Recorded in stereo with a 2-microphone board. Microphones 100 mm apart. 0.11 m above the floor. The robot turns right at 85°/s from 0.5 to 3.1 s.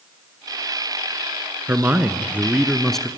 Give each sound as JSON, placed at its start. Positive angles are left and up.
{"t": 1.7, "sound": "a man speaking", "side_deg": -20, "distance_m": 1.1}